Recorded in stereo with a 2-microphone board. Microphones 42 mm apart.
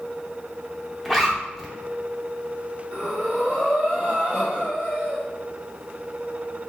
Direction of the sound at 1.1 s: 5° right (ahead or behind).